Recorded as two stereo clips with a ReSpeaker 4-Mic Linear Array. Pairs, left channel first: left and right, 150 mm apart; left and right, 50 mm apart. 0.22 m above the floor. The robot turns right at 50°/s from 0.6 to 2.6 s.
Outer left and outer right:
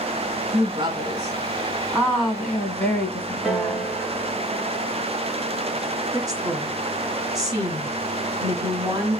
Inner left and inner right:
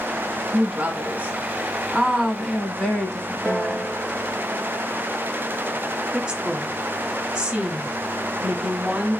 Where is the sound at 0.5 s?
85° right, 1.3 m; by 3.9 s 15° left, 1.3 m.